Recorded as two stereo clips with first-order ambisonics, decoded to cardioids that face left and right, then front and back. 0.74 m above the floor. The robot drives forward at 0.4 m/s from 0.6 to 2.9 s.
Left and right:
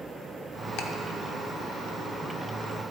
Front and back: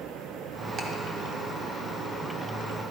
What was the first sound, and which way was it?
Ticking, 120° left.